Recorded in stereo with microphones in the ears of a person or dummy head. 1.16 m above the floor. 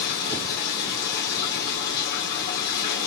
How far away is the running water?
About 2 m.